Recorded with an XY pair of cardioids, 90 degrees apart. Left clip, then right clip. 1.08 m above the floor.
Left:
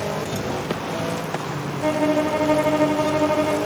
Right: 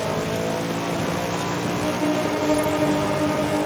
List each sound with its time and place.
1.8 s a violin: 55° left, 0.6 m